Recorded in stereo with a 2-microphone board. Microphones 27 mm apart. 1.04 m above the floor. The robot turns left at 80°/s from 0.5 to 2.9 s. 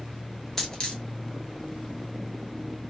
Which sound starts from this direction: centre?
A dropped coin, at 0.6 s.